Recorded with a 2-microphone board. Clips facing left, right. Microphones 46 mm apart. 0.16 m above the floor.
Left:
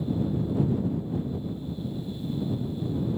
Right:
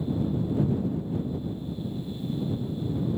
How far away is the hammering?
No hammering in this recording.